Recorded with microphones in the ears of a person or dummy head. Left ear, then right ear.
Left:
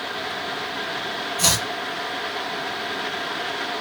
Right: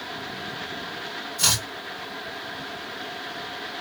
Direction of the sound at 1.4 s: 45° right (ahead or behind).